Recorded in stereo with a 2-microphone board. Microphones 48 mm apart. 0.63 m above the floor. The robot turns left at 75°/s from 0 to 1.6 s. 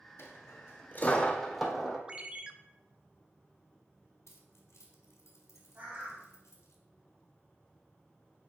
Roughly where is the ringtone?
Right.